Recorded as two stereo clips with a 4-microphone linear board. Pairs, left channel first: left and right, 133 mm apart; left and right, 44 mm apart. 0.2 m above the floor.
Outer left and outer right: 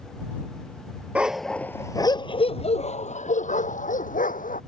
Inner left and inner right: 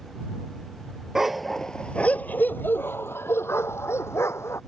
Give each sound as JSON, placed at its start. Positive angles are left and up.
{"t": 1.1, "sound": "a dog barking", "side_deg": -10}